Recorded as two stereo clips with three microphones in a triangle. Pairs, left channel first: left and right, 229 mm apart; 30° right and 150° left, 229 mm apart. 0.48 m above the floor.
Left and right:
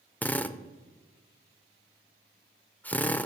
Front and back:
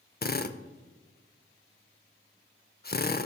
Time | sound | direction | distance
0.2 | a drill | 5° left | 0.5 m